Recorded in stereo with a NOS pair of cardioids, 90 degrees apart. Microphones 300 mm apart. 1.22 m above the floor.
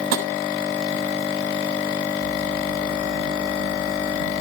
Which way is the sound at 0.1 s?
60° right.